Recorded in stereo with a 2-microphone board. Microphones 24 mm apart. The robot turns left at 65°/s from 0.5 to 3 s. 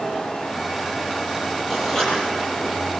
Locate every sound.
1.7 s writing: centre (ahead or behind), 8 m; by 3.0 s 80° left, 8 m